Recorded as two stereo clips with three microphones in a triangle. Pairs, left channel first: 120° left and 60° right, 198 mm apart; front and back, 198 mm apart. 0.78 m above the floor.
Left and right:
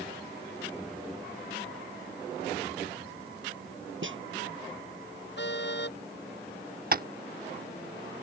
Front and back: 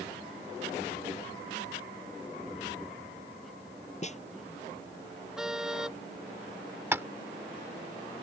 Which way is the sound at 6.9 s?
105° right.